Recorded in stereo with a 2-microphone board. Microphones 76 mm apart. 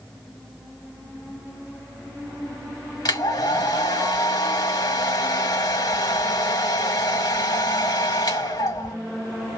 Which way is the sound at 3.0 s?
65° left (ahead or behind).